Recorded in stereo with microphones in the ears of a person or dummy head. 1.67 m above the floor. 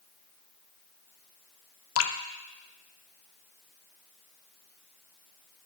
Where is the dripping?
85° left, 0.5 m.